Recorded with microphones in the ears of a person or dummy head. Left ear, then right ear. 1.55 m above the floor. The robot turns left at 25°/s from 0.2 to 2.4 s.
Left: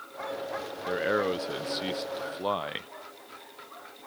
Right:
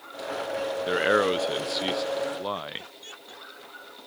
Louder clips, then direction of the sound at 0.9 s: Right 4 dB; 140° right.